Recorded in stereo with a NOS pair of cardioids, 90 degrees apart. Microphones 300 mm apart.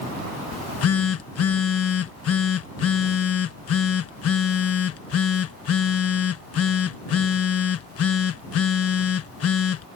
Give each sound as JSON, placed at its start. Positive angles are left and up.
{"t": 0.5, "sound": "a phone buzzing", "azimuth_deg": 55}